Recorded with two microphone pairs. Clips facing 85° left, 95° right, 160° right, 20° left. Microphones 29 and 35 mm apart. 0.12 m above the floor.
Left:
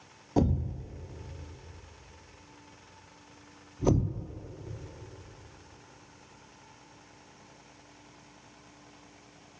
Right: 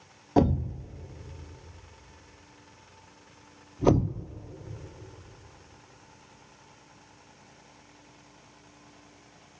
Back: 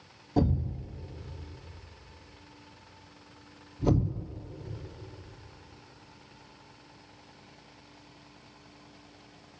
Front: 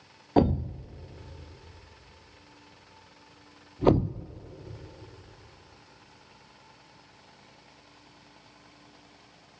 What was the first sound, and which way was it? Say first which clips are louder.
A thud: right 4 dB, front 5 dB; 30° right.